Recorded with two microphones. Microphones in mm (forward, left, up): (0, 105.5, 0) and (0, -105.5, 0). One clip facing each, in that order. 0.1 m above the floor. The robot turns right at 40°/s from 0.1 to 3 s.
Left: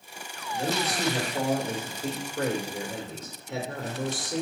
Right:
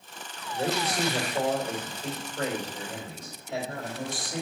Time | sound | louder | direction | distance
0.5 | a man speaking | right 1 dB | 15° right | 2.5 m